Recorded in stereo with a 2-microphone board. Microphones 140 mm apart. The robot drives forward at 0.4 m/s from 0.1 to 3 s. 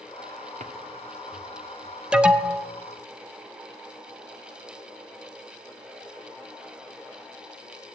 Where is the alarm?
5° right (ahead or behind), 0.8 m; by 2.7 s 10° right (ahead or behind), 0.6 m.